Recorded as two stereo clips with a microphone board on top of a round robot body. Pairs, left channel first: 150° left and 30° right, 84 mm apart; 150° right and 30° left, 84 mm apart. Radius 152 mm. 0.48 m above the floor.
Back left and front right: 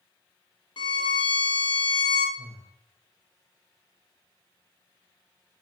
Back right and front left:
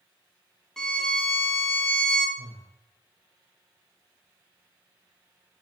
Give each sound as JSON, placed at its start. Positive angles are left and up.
{"t": 0.8, "sound": "a violin", "azimuth_deg": 125, "distance_m": 0.7}
{"t": 2.4, "sound": "breathing", "azimuth_deg": 65, "distance_m": 0.7}